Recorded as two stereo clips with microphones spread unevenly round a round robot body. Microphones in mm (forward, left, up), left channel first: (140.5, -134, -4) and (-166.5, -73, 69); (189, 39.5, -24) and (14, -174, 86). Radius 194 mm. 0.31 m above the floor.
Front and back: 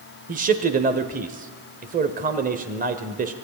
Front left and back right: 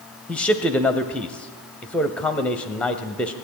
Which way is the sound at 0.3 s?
100° left.